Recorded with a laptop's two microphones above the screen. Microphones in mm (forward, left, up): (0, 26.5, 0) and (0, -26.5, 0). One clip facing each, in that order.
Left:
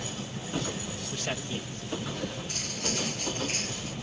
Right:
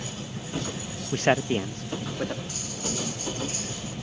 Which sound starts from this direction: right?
A man speaking, at 1.1 s.